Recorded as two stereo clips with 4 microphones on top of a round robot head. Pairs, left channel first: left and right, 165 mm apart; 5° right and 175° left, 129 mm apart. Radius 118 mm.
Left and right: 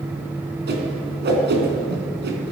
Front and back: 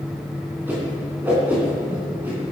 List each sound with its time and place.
0.7 s a whoosh: 105° right, 3.5 m